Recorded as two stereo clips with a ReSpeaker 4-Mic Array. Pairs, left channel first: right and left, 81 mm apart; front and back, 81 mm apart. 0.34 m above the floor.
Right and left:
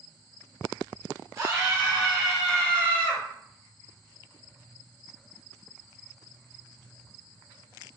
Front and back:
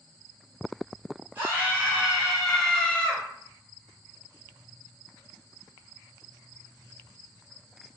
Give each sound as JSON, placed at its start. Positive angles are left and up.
{"t": 1.4, "sound": "a scream", "azimuth_deg": 130, "distance_m": 1.8}